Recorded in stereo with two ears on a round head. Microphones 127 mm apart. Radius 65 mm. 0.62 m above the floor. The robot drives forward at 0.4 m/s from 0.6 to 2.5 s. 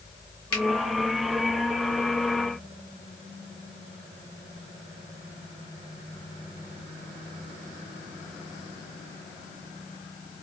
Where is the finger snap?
40° left (ahead or behind), 1.8 m.